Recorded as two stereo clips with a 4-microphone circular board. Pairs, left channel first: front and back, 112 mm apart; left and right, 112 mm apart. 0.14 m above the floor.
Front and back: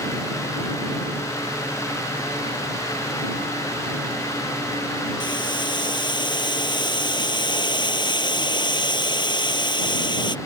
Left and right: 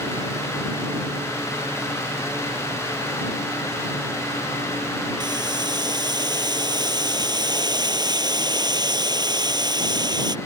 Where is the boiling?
45° right.